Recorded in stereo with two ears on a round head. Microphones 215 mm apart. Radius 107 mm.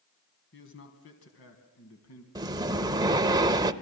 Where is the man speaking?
50° left (ahead or behind), 3.5 m; by 2.2 s 70° left (ahead or behind), 3.5 m.